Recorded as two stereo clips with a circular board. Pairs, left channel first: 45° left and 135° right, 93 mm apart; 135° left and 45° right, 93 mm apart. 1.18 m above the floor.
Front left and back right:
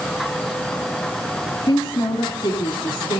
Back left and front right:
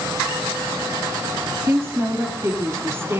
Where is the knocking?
I don't hear knocking.